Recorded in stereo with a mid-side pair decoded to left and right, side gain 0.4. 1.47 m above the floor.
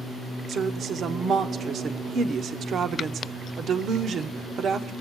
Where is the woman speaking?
65° right, 0.9 m.